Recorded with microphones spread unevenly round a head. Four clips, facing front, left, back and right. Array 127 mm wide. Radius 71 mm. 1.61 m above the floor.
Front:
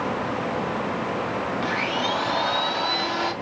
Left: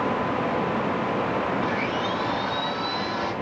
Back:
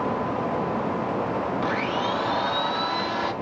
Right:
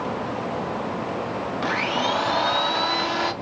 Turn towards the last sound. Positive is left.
turn(degrees=-70)